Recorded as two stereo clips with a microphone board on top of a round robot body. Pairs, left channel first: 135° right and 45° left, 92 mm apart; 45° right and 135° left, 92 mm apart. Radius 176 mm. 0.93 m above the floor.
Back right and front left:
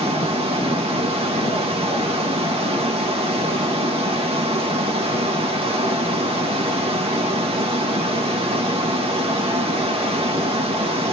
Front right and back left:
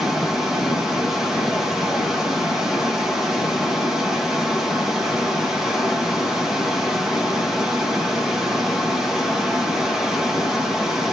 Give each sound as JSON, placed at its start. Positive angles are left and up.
{"t": 0.0, "sound": "running water", "azimuth_deg": 50, "distance_m": 1.2}